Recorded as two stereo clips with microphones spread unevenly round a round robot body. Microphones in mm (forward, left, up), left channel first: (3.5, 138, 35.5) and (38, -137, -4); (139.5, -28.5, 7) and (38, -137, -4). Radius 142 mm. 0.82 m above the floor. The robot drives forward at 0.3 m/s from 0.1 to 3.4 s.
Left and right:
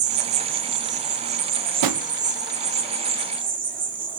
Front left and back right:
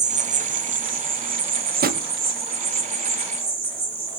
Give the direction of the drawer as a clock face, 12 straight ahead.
4 o'clock.